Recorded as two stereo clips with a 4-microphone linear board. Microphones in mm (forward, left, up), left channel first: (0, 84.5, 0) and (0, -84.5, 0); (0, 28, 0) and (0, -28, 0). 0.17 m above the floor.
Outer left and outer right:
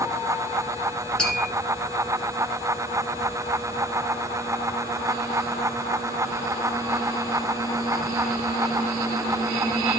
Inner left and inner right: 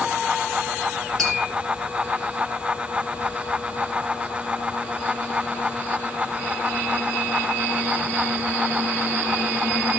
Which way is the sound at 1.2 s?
5° left (ahead or behind).